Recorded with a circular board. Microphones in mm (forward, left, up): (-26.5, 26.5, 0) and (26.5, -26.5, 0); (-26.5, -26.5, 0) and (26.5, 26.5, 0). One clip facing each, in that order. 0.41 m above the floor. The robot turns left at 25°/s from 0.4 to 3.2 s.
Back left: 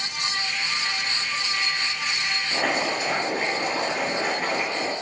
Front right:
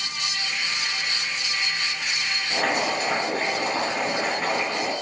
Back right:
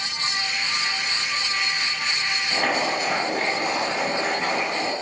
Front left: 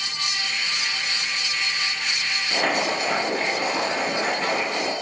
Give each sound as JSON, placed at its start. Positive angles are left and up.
{"t": 2.5, "sound": "boiling", "azimuth_deg": -35, "distance_m": 1.5}